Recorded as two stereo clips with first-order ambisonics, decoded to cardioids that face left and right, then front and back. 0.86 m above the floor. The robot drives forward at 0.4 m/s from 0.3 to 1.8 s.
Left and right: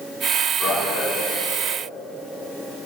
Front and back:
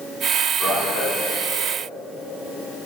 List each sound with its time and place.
0.6 s a man speaking: 35° left, 2 m; by 1.1 s 40° left, 1.9 m